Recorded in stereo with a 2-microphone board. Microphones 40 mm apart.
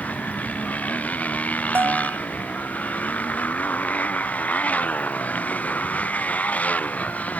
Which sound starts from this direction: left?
A motorcycle, at 0.0 s.